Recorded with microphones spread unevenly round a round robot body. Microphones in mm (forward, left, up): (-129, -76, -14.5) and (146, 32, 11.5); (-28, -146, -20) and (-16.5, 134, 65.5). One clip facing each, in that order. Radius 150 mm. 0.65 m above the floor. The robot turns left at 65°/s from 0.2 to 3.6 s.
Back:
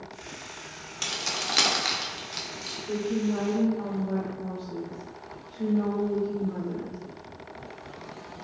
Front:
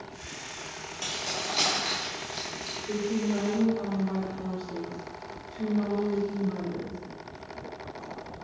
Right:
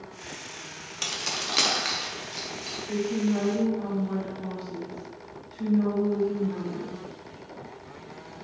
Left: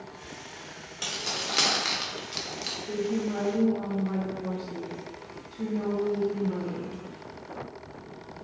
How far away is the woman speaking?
About 1.9 m.